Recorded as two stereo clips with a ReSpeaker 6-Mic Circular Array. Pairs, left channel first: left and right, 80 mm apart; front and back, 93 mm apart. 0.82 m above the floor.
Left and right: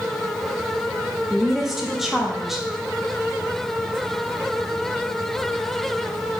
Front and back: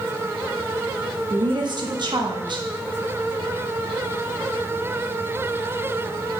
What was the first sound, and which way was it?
A woman speaking, 175° right.